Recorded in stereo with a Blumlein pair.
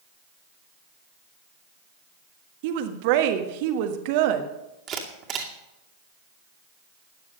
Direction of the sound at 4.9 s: 30° right.